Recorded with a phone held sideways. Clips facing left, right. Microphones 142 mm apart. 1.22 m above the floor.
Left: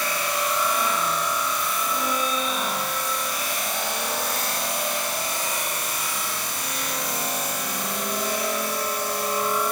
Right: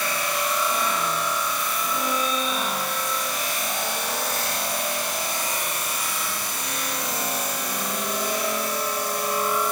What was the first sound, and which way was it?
Only background noise.